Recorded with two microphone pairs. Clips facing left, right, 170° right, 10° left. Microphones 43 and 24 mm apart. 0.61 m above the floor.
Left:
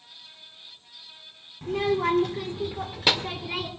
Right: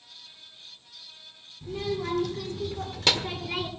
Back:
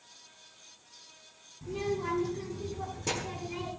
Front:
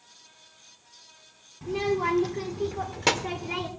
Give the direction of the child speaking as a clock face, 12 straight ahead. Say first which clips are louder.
Left 7 dB, front 7 dB; 10 o'clock.